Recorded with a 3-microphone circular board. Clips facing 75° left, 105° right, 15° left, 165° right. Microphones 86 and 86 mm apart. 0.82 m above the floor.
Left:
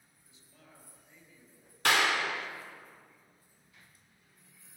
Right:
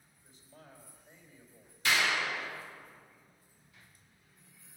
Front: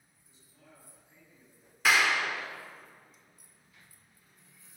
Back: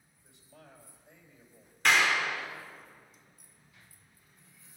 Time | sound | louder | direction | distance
0.2 | a man speaking | right 5 dB, back 5 dB | 155° right | 4 m
1.9 | a clap | left 3 dB, even | 100° left | 1.4 m